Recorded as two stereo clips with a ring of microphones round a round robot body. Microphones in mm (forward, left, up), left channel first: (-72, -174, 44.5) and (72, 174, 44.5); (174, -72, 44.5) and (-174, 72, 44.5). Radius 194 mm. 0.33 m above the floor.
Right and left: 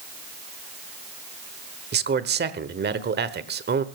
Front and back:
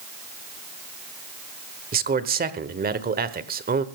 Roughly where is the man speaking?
Left.